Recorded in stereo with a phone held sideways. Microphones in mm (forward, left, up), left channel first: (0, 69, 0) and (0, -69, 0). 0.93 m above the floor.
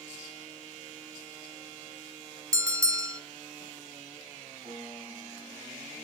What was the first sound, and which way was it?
A bell, 25° right (ahead or behind).